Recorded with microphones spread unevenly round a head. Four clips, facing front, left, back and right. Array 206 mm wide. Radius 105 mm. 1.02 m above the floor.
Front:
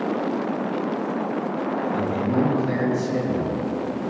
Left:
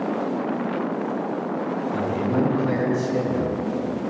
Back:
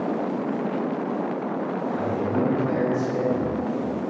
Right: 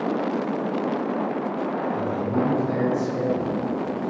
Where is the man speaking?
30° left, 5 m.